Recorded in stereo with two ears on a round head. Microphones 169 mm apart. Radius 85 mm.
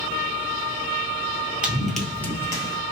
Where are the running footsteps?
5° right (ahead or behind), 1.3 m; by 2.8 s 25° left (ahead or behind), 1.3 m.